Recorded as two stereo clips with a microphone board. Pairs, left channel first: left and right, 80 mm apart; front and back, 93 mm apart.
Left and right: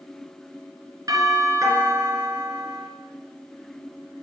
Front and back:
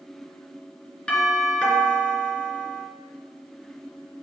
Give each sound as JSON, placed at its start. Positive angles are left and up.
{"t": 1.1, "sound": "a doorbell", "azimuth_deg": -75, "distance_m": 3.5}